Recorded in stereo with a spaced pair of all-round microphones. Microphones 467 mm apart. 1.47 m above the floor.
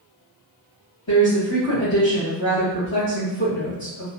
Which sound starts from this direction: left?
A woman speaking, at 1.1 s.